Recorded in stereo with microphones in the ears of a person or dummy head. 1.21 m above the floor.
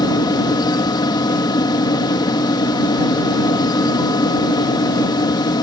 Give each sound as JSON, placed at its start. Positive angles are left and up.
{"t": 0.0, "sound": "a fan", "side_deg": 20}